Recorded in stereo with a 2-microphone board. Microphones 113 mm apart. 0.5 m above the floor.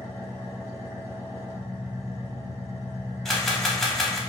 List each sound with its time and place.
0.0 s an engine running: 20° right (ahead or behind), 0.7 m
3.2 s a camera shutter: 5° left (ahead or behind), 0.6 m